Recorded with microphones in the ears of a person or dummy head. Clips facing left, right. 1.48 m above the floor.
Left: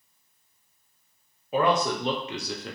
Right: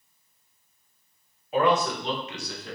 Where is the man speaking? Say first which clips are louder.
Right 1 dB; 70° left (ahead or behind), 0.9 m; by 2.8 s 45° left (ahead or behind), 0.6 m.